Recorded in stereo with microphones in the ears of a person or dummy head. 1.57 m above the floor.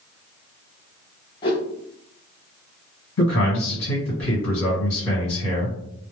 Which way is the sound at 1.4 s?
20° left (ahead or behind).